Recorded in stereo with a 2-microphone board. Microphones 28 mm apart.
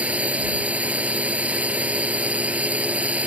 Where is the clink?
No clink in this recording.